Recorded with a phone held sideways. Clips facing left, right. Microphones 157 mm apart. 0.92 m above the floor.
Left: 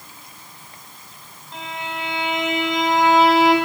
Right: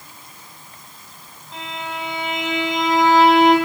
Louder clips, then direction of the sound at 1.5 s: Even; centre (ahead or behind).